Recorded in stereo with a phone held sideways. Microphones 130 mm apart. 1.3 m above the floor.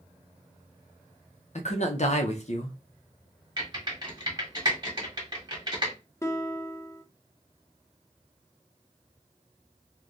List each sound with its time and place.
1.6 s a man speaking: 55° left (ahead or behind), 0.6 m
3.6 s typing on a keyboard: 30° right (ahead or behind), 1.2 m
6.2 s a guitar: 20° left (ahead or behind), 0.5 m